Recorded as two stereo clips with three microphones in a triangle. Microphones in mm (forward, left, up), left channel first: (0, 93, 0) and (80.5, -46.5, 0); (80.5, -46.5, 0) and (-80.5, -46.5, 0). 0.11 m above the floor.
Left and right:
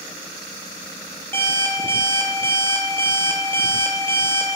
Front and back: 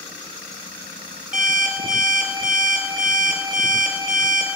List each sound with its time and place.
1.3 s an alarm clock: 165° right, 1.1 m